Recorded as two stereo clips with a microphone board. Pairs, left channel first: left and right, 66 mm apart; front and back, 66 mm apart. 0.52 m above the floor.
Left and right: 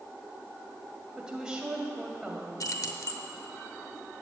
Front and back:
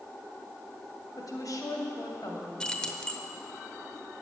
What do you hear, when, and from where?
1.2 s a woman speaking: 15° right, 2.5 m
2.6 s keys jangling: 75° left, 0.9 m